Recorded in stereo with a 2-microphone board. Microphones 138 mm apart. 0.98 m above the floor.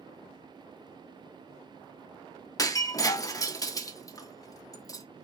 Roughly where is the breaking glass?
Left.